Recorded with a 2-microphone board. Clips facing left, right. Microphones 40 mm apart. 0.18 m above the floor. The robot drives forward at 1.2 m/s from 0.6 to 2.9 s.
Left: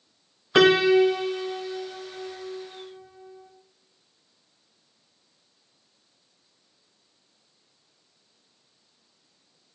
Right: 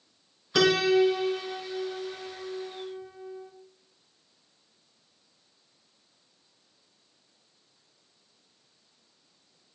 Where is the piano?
35° left (ahead or behind), 0.7 m; by 3.5 s 5° left (ahead or behind), 3.5 m.